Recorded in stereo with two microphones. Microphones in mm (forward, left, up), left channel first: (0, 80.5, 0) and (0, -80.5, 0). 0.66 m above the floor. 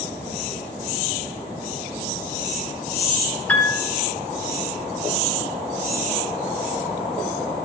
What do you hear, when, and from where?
3.5 s a piano: 10° left (ahead or behind), 3 m